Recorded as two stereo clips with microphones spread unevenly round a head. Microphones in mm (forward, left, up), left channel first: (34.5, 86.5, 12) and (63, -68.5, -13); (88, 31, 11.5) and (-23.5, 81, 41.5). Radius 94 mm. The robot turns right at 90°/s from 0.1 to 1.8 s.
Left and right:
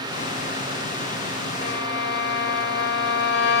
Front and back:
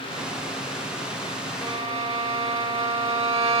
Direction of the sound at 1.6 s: 105° left.